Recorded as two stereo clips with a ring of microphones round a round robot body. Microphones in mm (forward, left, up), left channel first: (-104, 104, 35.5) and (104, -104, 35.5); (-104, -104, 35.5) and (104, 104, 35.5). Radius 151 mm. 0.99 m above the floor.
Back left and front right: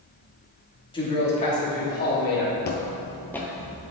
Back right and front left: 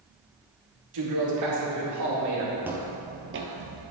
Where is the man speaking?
60° left, 2.5 m; by 2.5 s 80° left, 4 m.